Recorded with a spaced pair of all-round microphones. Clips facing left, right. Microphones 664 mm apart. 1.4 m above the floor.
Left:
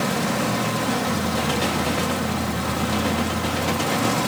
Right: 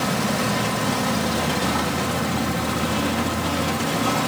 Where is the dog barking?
I don't hear a dog barking.